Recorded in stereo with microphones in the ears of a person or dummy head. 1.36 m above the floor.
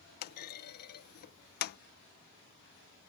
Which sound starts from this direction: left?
A clunk, at 0.2 s.